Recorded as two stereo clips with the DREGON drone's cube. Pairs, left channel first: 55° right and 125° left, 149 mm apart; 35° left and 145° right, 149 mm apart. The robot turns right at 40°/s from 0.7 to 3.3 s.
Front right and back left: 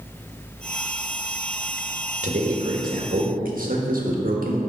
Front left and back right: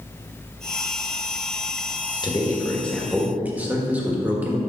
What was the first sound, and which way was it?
A man speaking, 90° left.